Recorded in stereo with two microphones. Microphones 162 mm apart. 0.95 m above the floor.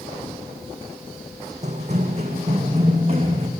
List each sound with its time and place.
1.6 s running footsteps: 45° right (ahead or behind), 3.5 m; by 3.5 s 40° right (ahead or behind), 5 m